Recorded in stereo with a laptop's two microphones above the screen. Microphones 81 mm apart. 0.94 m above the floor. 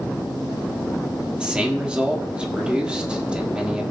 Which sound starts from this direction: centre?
A man speaking, at 1.4 s.